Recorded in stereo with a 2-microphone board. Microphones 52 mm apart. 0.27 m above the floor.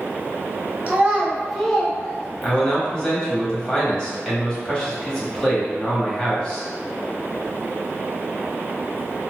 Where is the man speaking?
20° left (ahead or behind), 1.2 m.